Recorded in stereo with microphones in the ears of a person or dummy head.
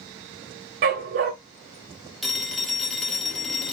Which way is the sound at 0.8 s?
45° right (ahead or behind).